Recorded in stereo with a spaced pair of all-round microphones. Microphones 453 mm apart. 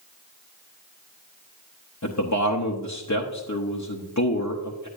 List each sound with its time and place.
2.0 s a man speaking: 40° left (ahead or behind), 0.9 m